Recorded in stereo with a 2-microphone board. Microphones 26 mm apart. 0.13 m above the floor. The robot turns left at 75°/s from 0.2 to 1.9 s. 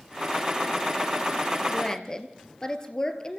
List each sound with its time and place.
1.7 s a woman speaking: 10° left (ahead or behind), 2.5 m; by 3.4 s 25° left (ahead or behind), 2.5 m